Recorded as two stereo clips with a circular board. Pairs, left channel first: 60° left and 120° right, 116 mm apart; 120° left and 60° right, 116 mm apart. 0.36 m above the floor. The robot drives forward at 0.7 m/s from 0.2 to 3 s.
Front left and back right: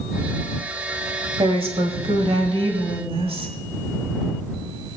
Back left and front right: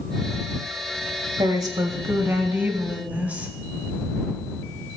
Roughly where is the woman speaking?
Right.